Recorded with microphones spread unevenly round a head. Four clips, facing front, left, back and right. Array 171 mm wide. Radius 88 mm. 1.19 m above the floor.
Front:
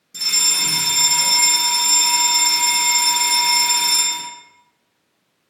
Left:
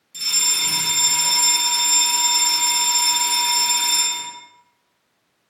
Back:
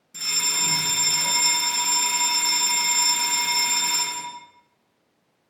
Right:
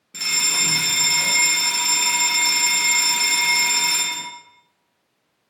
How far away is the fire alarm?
About 2 m.